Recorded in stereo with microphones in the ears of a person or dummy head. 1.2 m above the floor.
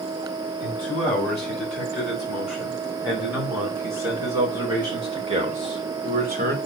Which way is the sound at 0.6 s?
5° left (ahead or behind).